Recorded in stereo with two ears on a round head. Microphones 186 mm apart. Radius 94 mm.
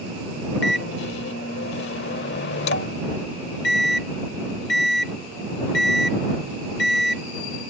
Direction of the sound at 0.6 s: 55° left (ahead or behind).